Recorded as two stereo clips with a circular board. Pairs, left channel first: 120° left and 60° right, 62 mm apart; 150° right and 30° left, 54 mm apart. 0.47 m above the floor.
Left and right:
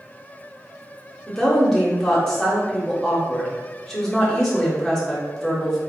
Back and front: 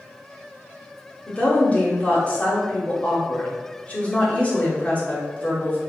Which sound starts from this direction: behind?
A woman speaking, at 1.3 s.